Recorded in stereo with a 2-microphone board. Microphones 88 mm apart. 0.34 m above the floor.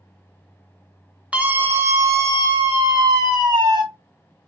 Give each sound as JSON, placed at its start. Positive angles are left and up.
{"t": 1.3, "sound": "a scream", "side_deg": -15, "distance_m": 1.1}